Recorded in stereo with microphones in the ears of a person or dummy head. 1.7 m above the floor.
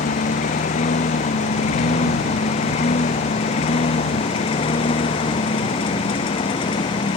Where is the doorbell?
I don't hear a doorbell.